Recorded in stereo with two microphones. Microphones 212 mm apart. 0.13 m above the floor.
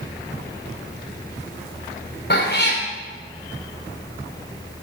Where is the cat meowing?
50° left (ahead or behind), 2.5 m.